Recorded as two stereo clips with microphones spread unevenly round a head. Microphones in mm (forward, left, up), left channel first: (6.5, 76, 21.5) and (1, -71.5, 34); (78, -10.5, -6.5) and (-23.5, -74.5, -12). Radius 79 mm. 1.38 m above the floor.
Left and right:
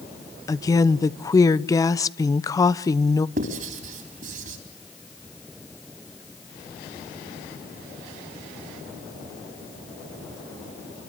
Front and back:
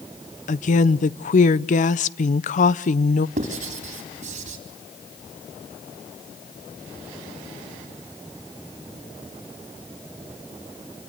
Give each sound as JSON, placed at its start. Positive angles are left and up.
{"t": 0.5, "sound": "a woman speaking", "azimuth_deg": 25, "distance_m": 0.7}
{"t": 3.4, "sound": "writing", "azimuth_deg": -130, "distance_m": 4.0}